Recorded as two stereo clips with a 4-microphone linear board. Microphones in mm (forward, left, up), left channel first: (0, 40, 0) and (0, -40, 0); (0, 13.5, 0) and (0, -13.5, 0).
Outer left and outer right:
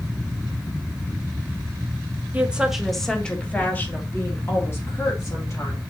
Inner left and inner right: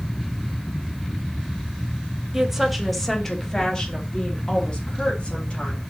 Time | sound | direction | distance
2.3 | a woman speaking | 15° right (ahead or behind) | 1.4 m